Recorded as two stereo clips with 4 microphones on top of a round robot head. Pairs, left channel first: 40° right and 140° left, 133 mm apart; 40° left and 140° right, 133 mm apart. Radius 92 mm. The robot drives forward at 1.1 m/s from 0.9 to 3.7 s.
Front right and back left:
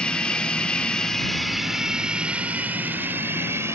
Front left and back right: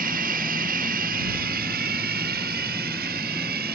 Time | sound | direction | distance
0.0 | running water | 120° right | ?